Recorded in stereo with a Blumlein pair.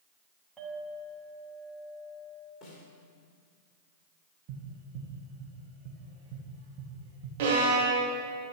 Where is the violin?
50° right, 3 m.